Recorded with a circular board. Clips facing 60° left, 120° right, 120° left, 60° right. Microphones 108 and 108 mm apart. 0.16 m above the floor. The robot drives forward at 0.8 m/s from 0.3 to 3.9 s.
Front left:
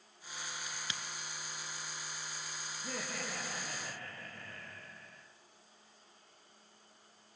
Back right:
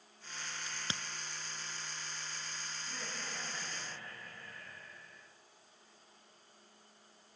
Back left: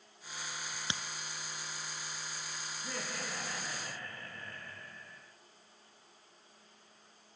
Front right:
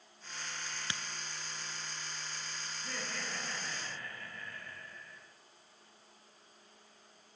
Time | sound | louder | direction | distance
0.7 | a crack | back right 1 dB, back left 2 dB | 170° right | 0.9 m
2.8 | laughter | front left 7 dB, back left 2 dB | 45° left | 9 m